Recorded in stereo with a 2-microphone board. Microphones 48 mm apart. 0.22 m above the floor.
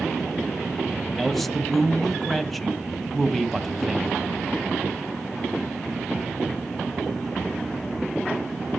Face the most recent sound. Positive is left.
turn(degrees=5)  # may be behind; listen again after turning